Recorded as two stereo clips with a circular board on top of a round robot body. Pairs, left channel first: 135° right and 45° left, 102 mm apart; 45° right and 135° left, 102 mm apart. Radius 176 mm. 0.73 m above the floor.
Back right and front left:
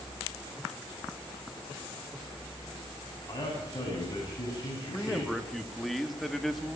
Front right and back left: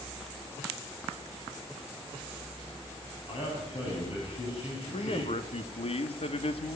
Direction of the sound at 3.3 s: 75° right.